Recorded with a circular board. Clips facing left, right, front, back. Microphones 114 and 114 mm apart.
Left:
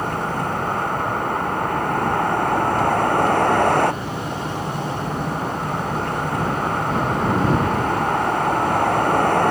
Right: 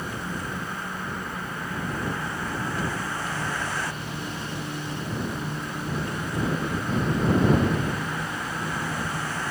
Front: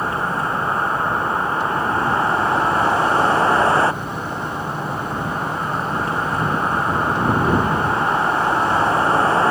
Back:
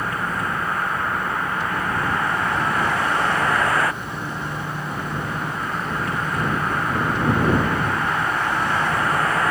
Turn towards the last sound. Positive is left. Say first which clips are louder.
# left 9 dB, front 3 dB
turn(degrees=60)